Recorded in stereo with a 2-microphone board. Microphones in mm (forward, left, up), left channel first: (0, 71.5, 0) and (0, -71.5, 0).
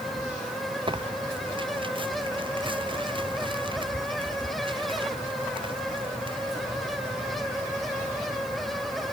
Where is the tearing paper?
35° right (ahead or behind).